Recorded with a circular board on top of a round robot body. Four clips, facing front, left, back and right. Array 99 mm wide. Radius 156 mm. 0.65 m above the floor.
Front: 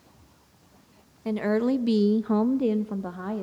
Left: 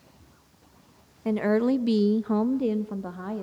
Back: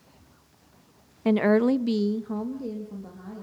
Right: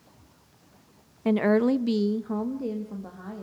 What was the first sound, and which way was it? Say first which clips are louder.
A woman speaking: right 1 dB, back 4 dB; 155° right.